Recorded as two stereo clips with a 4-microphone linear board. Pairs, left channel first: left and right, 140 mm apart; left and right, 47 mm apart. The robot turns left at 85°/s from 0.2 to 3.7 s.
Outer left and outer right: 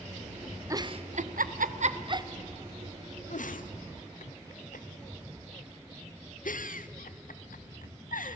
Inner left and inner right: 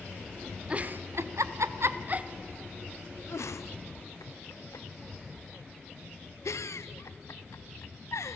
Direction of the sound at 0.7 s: 25° right (ahead or behind).